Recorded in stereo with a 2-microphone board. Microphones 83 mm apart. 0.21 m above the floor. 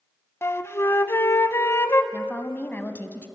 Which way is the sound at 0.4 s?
30° left (ahead or behind).